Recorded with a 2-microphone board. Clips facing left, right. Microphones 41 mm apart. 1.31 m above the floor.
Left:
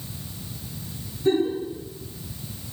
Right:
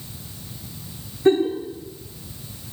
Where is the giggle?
45° right (ahead or behind), 0.6 m.